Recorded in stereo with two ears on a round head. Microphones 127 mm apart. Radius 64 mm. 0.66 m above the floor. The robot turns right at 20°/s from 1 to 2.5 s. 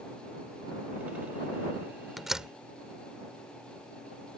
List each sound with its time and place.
2.2 s a door slam: centre (ahead or behind); by 2.5 s 5° right (ahead or behind)